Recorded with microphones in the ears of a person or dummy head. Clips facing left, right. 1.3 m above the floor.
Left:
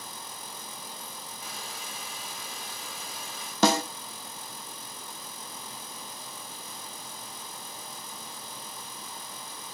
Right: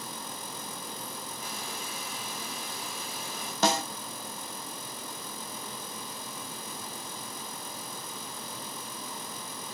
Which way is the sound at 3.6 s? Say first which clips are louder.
Left 4 dB; 70° left (ahead or behind).